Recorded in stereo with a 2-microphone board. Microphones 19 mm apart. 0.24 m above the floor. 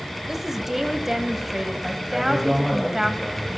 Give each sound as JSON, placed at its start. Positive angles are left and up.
{"t": 0.3, "sound": "a woman speaking", "side_deg": -15, "distance_m": 0.9}
{"t": 2.1, "sound": "a man speaking", "side_deg": 10, "distance_m": 4.0}